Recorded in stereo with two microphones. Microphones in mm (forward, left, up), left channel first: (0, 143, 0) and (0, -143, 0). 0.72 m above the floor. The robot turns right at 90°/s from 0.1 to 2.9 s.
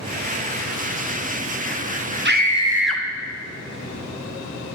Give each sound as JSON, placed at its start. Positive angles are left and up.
{"t": 2.2, "sound": "a scream", "azimuth_deg": -55, "distance_m": 0.7}